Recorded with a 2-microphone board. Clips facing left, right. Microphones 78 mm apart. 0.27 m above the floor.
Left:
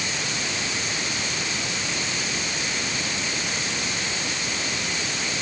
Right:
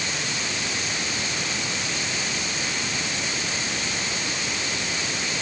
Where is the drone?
I don't hear a drone.